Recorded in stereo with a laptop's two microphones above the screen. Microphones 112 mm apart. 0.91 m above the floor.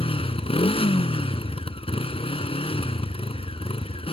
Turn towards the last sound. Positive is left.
turn(degrees=55)  # may be behind; listen again after turning